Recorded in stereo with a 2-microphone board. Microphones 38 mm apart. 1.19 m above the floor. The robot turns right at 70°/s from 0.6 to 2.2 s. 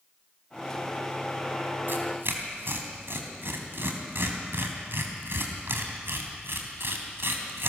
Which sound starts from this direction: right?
Tearing paper, at 1.9 s.